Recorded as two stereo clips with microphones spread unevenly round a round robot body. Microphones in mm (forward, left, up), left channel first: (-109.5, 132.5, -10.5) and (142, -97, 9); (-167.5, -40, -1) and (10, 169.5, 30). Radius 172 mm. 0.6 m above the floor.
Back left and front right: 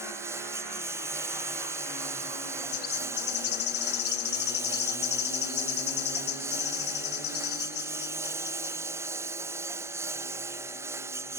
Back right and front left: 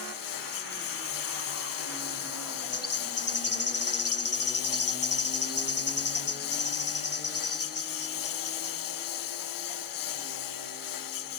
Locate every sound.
0.0 s a lawn mower: 125° right
2.7 s a bird: 170° right